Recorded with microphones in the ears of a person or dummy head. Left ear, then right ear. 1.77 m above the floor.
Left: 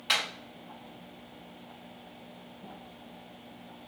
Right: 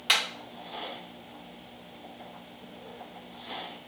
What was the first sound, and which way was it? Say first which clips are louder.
Hammering: right 3 dB; 10° right (ahead or behind).